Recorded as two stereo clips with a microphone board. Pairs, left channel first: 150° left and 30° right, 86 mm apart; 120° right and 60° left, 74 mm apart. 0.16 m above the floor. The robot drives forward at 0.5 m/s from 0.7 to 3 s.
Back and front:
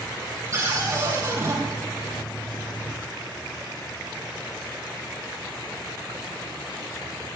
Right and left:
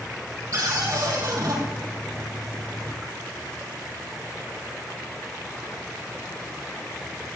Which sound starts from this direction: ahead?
A cupboard door, at 0.5 s.